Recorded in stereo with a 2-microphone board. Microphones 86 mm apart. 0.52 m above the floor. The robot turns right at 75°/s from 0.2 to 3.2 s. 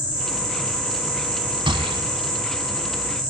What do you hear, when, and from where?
1.7 s a gunshot: 75° right (ahead or behind), 1.4 m; by 2.0 s 80° right, 1.4 m